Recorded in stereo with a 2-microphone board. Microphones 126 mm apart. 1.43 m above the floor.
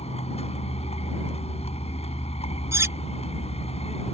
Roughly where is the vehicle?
Left.